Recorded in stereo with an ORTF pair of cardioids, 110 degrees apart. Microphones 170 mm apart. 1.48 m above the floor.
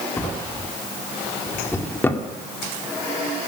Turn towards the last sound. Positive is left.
turn(degrees=15)